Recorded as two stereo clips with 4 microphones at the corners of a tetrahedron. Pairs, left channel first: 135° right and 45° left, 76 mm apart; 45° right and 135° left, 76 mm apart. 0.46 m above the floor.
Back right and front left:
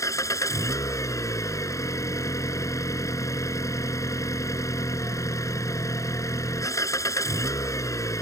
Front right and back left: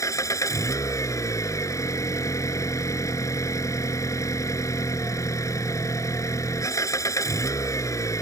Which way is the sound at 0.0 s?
90° right.